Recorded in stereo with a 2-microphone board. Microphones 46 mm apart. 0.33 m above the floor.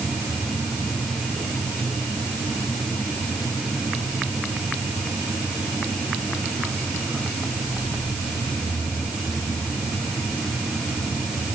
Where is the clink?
I don't hear a clink.